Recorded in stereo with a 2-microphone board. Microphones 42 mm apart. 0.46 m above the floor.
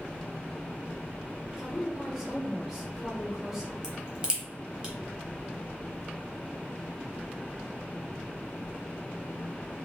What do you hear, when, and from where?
1.6 s a woman speaking: 10° right (ahead or behind), 1.3 m
3.8 s a crack: 20° right (ahead or behind), 0.9 m